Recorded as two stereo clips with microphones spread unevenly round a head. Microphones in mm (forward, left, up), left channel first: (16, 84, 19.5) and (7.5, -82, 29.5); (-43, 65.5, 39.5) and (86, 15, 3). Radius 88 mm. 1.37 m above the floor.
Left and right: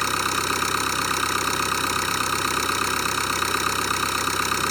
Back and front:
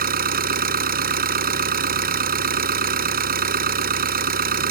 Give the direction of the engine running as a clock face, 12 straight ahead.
12 o'clock.